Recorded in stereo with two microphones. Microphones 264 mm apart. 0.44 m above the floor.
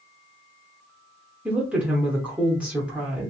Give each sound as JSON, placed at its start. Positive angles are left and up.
{"t": 1.4, "sound": "a woman speaking", "side_deg": -5, "distance_m": 0.7}